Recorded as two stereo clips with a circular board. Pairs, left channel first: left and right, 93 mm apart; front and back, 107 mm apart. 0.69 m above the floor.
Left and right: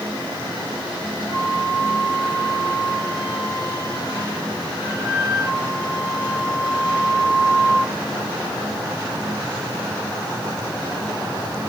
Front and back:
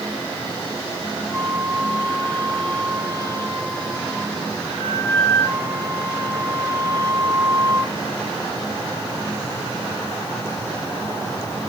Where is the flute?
115° left, 2.5 m.